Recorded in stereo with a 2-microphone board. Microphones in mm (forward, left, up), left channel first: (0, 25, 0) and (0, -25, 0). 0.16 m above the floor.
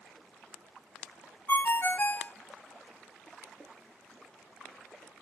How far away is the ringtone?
About 0.6 m.